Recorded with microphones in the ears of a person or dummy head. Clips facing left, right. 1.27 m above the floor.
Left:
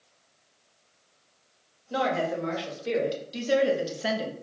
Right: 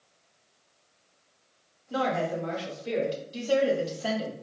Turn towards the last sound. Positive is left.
turn(degrees=15)  # may be behind; listen again after turning